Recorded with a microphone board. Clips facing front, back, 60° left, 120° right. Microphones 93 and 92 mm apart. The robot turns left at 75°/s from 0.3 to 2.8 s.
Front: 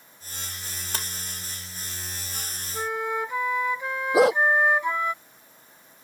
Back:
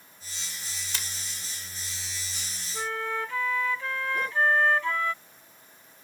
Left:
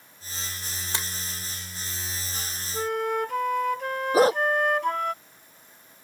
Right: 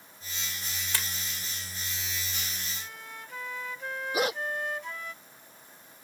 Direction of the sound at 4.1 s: 5° left.